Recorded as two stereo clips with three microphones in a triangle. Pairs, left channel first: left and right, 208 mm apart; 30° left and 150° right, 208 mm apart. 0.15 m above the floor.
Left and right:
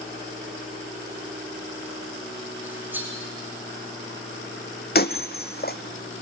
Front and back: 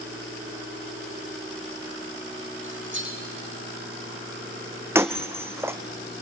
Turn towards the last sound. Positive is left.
turn(degrees=130)